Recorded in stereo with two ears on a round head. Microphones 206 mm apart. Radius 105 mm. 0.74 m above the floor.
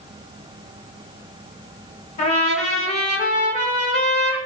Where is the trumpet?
30° left (ahead or behind), 1.0 m.